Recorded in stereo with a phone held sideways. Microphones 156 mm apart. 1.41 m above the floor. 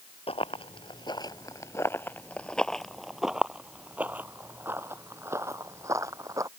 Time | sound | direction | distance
0.3 | running footsteps | 40° left (ahead or behind) | ?